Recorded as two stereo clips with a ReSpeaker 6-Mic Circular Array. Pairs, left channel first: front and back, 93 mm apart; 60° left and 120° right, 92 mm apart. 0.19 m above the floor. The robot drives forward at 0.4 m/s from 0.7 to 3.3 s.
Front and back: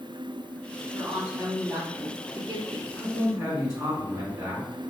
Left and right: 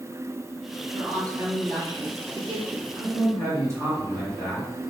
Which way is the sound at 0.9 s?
115° right.